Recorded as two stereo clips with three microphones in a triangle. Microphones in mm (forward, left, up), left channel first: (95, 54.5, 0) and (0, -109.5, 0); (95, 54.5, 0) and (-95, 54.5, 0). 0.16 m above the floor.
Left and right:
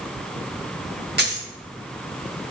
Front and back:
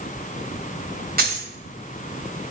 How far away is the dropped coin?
About 1.3 m.